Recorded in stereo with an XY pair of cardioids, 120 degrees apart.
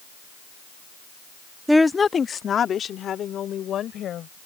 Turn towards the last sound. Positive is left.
turn(degrees=55)